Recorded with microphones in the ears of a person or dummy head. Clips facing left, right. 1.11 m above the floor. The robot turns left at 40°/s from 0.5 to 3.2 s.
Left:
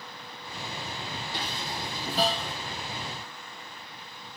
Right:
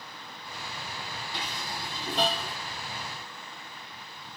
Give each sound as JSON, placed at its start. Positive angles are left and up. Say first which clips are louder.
{"t": 1.3, "sound": "dishes clattering", "louder": "left 2 dB", "side_deg": 30, "distance_m": 0.7}